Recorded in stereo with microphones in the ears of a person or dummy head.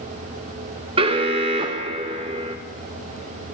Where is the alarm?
30° right (ahead or behind), 0.9 m.